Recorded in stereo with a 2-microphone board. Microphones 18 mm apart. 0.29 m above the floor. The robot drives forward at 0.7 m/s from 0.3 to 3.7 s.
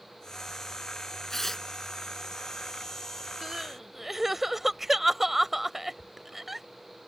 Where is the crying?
15° right (ahead or behind).